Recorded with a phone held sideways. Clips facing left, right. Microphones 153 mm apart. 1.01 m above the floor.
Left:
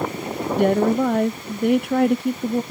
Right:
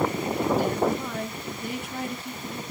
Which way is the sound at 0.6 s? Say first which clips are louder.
Left 7 dB; 65° left (ahead or behind).